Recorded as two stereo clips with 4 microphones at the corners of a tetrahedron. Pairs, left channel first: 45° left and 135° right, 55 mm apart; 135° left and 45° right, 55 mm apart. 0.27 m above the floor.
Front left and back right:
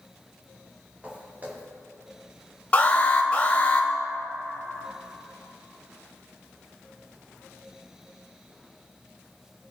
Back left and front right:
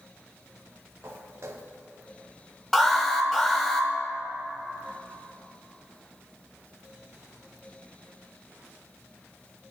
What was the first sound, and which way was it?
Footsteps, 75° right.